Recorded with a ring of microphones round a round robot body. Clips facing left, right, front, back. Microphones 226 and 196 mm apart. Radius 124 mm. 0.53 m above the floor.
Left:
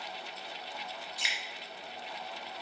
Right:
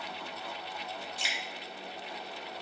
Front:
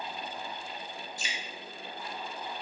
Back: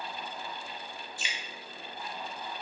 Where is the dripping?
40° right, 1.3 m.